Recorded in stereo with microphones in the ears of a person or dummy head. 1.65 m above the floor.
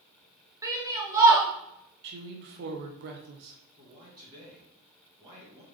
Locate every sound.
0.6 s a shout: 20° right (ahead or behind), 1.1 m
2.0 s a woman speaking: 55° right (ahead or behind), 0.7 m
3.8 s a man speaking: 25° right (ahead or behind), 1.2 m